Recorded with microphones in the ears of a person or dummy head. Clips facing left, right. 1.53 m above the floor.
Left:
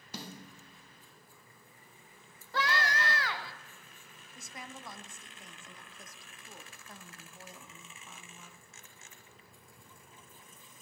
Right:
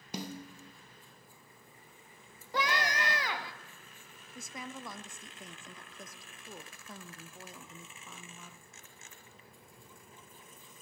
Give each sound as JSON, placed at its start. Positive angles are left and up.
{"t": 0.1, "sound": "a snare drum", "side_deg": -15, "distance_m": 0.7}
{"t": 2.5, "sound": "a scream", "side_deg": -15, "distance_m": 0.5}
{"t": 4.3, "sound": "a woman speaking", "side_deg": -70, "distance_m": 0.5}